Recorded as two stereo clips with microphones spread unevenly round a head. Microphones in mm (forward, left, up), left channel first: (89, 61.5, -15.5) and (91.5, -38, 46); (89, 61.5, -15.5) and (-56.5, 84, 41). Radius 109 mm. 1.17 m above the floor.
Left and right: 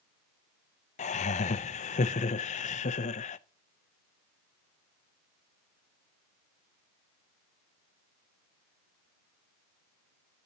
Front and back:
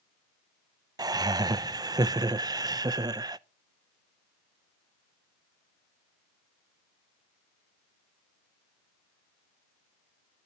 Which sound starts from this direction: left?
Laughter, at 1.0 s.